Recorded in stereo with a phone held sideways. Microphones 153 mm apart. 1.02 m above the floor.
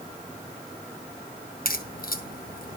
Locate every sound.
1.6 s a crack: 70° left (ahead or behind), 2.5 m